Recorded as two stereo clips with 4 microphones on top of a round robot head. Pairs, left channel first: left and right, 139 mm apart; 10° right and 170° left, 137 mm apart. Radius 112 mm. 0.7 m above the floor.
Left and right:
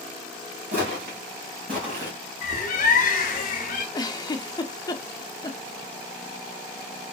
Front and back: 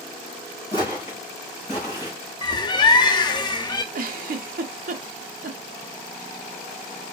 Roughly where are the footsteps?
Right.